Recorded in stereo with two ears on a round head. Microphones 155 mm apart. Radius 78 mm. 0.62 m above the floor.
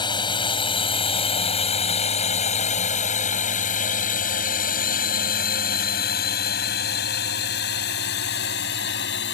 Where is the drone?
25° left (ahead or behind); by 9.3 s 70° left (ahead or behind).